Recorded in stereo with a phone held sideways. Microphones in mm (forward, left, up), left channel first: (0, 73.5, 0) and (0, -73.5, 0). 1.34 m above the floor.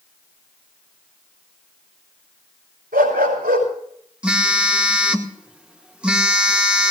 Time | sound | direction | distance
2.9 | a dog barking | 80° right | 5.5 m
4.2 | a phone buzzing | 5° right (ahead or behind) | 1.2 m